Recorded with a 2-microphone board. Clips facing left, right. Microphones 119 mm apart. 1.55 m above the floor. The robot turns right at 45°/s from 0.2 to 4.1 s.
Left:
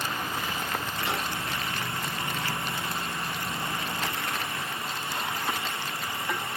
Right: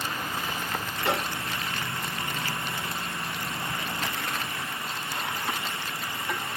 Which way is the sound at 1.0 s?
75° right (ahead or behind).